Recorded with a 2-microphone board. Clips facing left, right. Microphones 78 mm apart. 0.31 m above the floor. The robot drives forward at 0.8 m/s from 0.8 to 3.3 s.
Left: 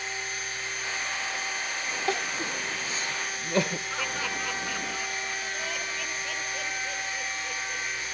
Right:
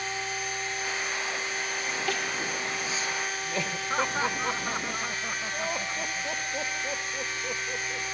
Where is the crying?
30° left (ahead or behind), 1.6 m; by 3.8 s 65° left (ahead or behind), 0.9 m.